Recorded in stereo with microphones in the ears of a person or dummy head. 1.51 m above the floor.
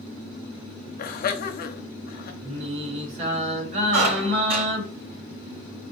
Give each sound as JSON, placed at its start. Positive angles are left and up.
{"t": 1.0, "sound": "laughter", "side_deg": 55, "distance_m": 0.7}
{"t": 2.4, "sound": "singing", "side_deg": -45, "distance_m": 1.6}
{"t": 3.9, "sound": "a squeak", "side_deg": -65, "distance_m": 3.0}